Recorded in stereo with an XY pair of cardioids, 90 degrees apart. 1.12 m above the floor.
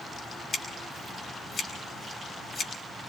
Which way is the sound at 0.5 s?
45° left.